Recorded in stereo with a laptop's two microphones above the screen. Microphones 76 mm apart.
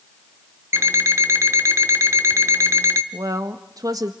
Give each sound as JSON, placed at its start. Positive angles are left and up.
{"t": 0.7, "sound": "an alarm clock", "side_deg": -35, "distance_m": 1.0}
{"t": 3.1, "sound": "a woman speaking", "side_deg": -50, "distance_m": 1.3}